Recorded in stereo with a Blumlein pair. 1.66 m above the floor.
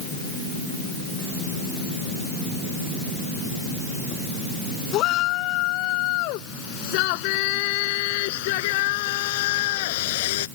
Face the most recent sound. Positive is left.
turn(degrees=55)